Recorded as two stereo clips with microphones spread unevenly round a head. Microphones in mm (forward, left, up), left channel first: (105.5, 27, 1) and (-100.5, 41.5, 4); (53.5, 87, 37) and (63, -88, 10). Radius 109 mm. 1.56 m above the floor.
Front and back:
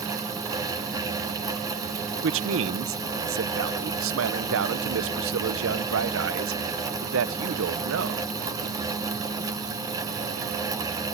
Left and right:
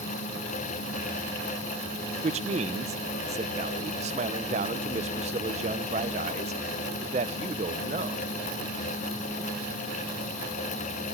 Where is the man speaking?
150° right, 0.9 m.